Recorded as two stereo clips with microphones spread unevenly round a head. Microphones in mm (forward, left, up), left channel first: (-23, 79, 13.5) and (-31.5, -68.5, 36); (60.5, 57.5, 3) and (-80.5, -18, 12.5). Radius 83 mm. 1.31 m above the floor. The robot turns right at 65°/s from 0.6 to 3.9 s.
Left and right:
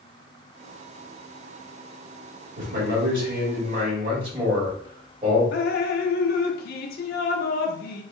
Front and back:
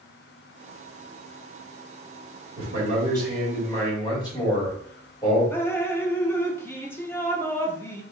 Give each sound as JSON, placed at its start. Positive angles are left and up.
{"t": 2.6, "sound": "a man speaking", "azimuth_deg": -120, "distance_m": 2.5}
{"t": 5.5, "sound": "dripping", "azimuth_deg": 105, "distance_m": 0.6}